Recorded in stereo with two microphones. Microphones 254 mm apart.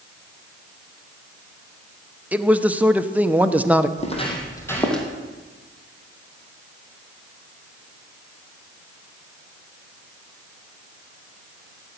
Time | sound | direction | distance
2.3 | a man speaking | 5° right (ahead or behind) | 0.8 m
4.0 | footsteps | 25° left (ahead or behind) | 3 m